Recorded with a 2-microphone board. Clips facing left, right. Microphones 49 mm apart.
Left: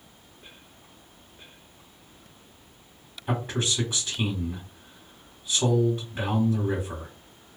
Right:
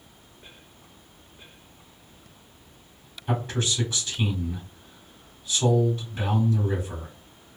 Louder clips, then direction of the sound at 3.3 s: Even; 20° left (ahead or behind).